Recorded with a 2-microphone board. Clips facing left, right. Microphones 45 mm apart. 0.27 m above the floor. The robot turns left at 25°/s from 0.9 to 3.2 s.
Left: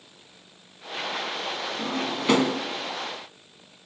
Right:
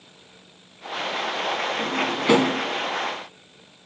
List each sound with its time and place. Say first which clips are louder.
1.8 s a drawer: right 4 dB; 10° left (ahead or behind), 1.6 m; by 2.6 s 10° right (ahead or behind), 1.6 m